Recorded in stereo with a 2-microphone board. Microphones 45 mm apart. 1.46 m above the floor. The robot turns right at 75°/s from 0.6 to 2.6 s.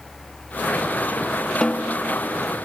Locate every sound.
1.6 s a snare drum: 20° left (ahead or behind), 0.6 m; by 2.0 s 40° left (ahead or behind), 0.6 m